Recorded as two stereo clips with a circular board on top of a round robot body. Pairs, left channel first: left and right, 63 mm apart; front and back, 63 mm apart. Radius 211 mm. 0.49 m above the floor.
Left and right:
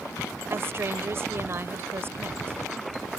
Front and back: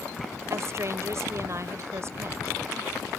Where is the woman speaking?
140° right.